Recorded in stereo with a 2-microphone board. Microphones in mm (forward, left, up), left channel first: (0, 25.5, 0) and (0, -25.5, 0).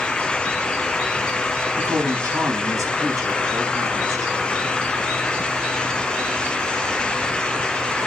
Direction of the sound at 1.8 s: 80° right.